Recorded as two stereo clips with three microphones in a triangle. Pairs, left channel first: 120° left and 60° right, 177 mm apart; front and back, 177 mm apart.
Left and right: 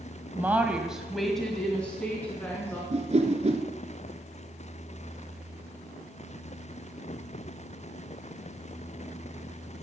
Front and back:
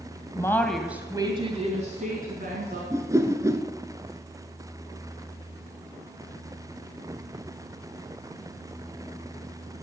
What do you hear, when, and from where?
0.3 s a woman speaking: 5° right, 1.3 m; by 2.8 s 160° right, 2.5 m
2.9 s a whoosh: 105° right, 1.1 m